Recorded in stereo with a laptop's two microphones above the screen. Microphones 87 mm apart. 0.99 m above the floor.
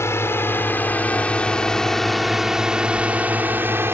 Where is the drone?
30° left (ahead or behind); by 3.9 s 30° right (ahead or behind).